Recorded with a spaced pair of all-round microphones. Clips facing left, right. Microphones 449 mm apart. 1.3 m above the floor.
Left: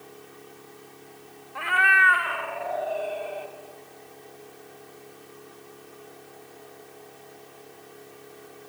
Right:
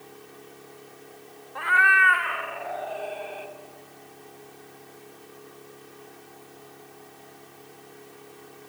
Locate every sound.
1.6 s a cat meowing: 45° left (ahead or behind), 1.2 m; by 3.5 s 70° left (ahead or behind), 3 m